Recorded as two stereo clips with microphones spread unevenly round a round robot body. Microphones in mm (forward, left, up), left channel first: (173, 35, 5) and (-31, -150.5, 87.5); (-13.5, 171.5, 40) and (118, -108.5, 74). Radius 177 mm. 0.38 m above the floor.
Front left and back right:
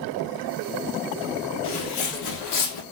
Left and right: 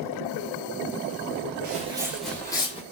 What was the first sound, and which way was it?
Footsteps, 10° right.